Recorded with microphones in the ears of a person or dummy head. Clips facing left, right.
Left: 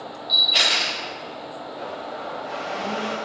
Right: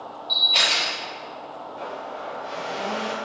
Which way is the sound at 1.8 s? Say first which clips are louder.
Even; 30° right (ahead or behind).